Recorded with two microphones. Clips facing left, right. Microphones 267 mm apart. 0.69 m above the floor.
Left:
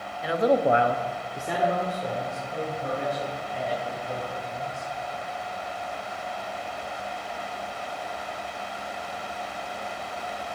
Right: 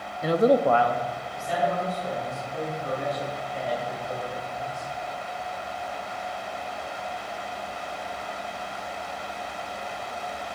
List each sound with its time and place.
0.2 s a man speaking: 50° right (ahead or behind), 0.7 m; by 4.9 s 70° left (ahead or behind), 6 m